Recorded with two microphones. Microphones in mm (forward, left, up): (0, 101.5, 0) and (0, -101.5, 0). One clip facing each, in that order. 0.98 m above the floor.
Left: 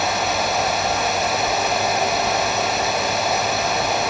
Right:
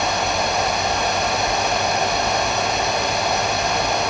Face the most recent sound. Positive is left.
No sound to turn to.